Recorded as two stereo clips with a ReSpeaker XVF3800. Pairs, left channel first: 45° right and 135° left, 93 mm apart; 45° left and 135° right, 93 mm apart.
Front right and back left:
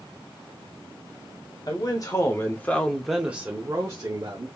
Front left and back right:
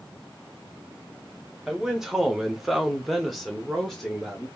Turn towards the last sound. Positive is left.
turn(degrees=130)